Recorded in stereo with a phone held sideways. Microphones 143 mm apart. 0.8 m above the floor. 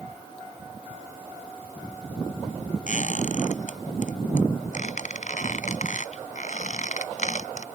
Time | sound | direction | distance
2.9 | a squeak | 60° left (ahead or behind) | ?